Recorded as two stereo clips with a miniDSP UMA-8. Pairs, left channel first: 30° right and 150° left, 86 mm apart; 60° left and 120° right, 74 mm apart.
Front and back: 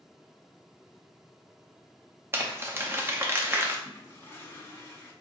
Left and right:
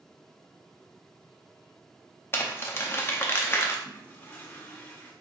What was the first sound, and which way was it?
Crumpling, 100° left.